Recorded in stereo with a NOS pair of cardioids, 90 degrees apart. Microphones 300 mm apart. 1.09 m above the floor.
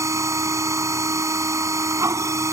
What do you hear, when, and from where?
0.0 s a machine running: 10° right